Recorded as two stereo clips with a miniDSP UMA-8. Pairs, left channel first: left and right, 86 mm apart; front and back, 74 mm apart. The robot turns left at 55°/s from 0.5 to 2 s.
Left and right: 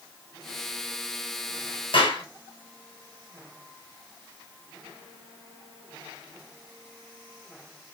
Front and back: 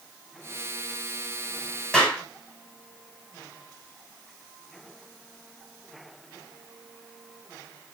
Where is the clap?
80° left, 6 m; by 2.2 s 75° left, 6 m.